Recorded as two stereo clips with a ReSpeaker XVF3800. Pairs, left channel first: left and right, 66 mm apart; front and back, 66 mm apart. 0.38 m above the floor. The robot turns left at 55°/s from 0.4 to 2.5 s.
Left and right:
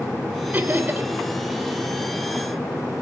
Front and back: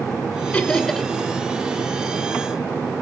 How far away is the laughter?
About 1.7 m.